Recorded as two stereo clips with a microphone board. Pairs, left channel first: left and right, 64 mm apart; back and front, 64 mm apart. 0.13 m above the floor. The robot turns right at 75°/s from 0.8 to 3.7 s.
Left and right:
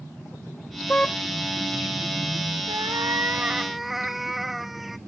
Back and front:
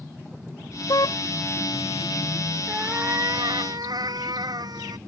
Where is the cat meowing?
80° right; by 5.0 s 5° right.